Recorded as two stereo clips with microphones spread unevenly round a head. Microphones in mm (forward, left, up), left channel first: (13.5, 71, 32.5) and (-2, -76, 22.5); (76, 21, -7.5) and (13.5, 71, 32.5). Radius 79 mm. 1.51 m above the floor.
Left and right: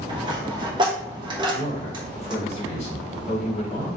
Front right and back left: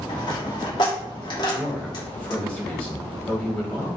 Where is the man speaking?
40° left, 1.5 m.